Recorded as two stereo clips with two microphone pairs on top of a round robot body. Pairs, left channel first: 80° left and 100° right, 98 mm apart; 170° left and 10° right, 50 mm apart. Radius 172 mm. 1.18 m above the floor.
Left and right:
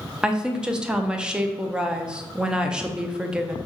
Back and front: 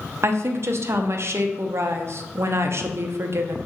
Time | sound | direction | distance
0.2 | a woman speaking | 25° right | 0.6 m